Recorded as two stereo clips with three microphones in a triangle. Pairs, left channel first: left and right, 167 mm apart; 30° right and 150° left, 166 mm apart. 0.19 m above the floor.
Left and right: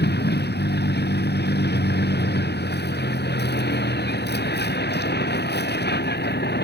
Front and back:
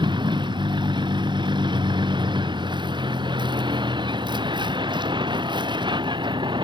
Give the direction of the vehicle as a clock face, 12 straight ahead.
9 o'clock.